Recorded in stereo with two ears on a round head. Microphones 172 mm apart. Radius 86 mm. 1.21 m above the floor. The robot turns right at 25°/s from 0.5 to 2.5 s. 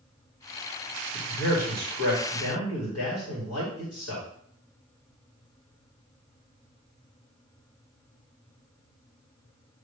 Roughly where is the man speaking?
Ahead left.